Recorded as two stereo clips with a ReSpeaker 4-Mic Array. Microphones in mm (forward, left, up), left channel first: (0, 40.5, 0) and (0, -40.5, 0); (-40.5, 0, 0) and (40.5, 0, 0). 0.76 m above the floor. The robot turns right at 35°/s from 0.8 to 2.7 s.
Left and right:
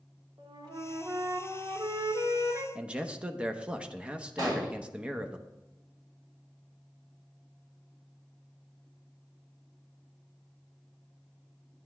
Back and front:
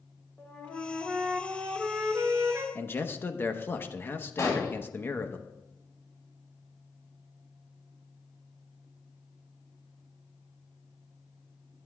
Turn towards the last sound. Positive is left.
turn(degrees=-125)